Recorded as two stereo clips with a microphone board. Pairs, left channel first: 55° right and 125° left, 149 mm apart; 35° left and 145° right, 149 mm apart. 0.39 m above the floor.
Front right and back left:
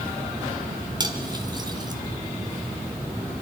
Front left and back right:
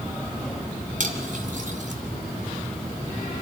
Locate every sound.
1.0 s cutlery clinking: 175° right, 2.0 m